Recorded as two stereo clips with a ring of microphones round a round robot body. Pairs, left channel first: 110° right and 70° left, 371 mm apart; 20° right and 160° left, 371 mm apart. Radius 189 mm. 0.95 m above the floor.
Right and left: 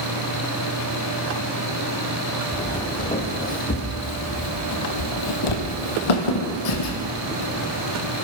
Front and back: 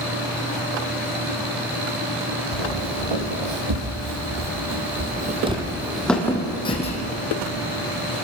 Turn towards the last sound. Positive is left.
turn(degrees=-85)